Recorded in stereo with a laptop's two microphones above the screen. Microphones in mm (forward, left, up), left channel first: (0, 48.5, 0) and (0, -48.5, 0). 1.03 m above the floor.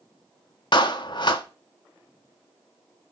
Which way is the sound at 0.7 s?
55° left (ahead or behind).